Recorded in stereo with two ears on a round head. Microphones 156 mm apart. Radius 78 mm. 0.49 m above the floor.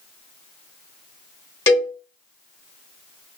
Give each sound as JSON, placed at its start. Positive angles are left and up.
{"t": 1.7, "sound": "a cowbell", "side_deg": 20, "distance_m": 1.3}